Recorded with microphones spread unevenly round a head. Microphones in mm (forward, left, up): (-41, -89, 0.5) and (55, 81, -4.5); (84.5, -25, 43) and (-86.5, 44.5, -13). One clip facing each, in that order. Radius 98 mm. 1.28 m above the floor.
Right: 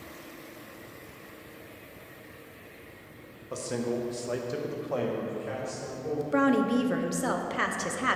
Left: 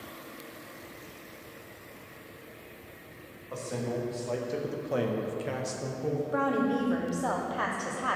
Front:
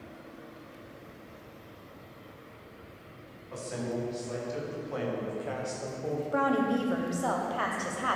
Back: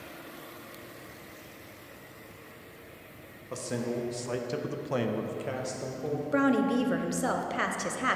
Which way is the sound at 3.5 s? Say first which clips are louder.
Right 3 dB, back 2 dB; 175° right.